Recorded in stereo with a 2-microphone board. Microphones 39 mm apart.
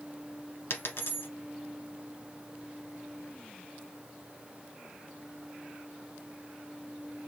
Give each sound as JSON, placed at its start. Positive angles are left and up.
{"t": 0.7, "sound": "a dropped coin", "side_deg": 65, "distance_m": 1.1}